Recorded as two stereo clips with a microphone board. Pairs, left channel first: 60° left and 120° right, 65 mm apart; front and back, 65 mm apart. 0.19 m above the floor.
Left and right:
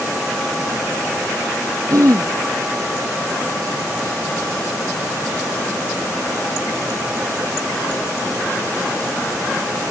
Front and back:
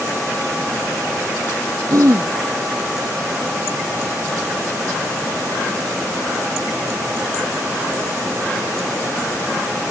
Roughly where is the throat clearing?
Behind right.